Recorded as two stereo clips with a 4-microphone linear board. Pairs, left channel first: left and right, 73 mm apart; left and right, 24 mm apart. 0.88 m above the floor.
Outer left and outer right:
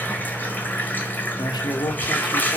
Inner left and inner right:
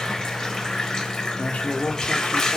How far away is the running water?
About 4 m.